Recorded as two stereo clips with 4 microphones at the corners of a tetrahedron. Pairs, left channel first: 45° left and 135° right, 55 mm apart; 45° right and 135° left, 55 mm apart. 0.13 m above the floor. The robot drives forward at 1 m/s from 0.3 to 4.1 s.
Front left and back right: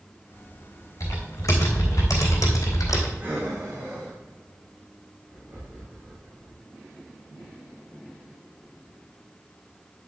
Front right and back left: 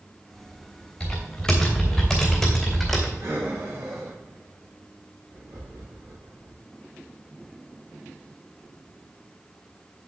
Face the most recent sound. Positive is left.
turn(degrees=175)